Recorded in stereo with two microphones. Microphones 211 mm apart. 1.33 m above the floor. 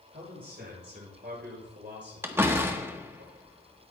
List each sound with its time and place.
0.1 s a man speaking: 50° right (ahead or behind), 6 m; by 3.2 s 65° right (ahead or behind), 5 m
2.2 s a door slam: 10° right (ahead or behind), 1.1 m